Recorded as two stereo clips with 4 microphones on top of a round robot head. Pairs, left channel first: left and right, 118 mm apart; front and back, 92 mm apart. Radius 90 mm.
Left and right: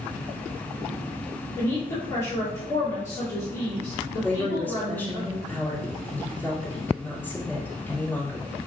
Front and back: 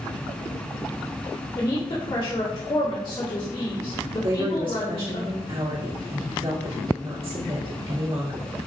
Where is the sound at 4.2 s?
165° left, 2.5 m.